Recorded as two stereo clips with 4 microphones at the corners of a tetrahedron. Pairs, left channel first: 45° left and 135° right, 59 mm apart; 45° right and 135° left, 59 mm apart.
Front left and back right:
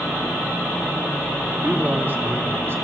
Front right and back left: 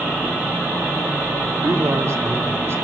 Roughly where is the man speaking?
Behind.